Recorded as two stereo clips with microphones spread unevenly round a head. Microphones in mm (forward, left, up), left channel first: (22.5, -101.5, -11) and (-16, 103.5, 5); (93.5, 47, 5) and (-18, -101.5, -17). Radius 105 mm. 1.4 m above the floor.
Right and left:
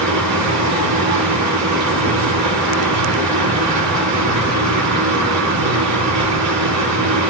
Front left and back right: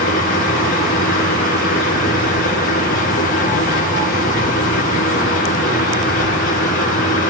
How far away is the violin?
No violin in this recording.